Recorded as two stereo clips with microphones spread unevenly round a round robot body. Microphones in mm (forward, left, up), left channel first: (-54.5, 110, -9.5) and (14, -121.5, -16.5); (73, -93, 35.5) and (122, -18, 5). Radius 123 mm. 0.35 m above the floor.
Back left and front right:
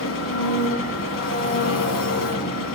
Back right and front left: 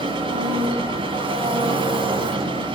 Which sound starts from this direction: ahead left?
An engine running, at 0.0 s.